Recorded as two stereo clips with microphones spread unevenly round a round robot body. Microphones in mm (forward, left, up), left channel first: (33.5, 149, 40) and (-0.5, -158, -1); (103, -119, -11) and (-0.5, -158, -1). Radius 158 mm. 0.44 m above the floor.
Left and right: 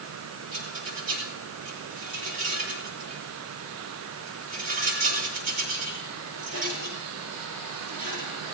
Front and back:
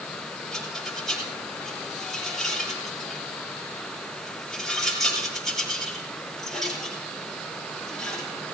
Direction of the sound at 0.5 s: 65° right.